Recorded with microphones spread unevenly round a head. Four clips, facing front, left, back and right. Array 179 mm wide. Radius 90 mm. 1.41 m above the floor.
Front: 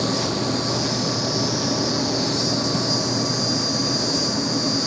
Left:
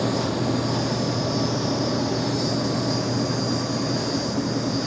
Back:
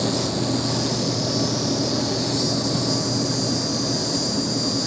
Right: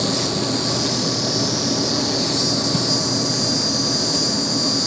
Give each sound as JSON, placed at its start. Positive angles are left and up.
{"t": 0.0, "sound": "an insect", "azimuth_deg": -95, "distance_m": 1.4}